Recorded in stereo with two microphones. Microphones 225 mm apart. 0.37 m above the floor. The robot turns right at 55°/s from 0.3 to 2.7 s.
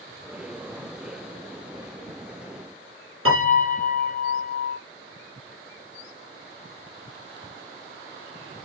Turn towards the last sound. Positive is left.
turn(degrees=-80)